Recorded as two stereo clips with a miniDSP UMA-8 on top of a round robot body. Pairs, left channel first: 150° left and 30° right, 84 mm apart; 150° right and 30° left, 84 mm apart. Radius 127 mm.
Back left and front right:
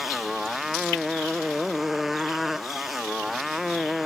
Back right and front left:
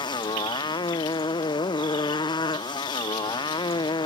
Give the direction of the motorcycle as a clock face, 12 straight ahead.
4 o'clock.